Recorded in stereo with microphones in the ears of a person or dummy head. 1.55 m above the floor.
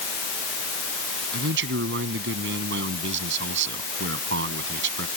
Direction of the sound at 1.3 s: 65° right (ahead or behind).